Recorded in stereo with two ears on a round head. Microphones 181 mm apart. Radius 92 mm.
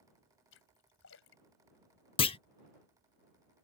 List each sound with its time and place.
0.5 s a splash: 70° left (ahead or behind)
2.2 s a clunk: 25° left (ahead or behind)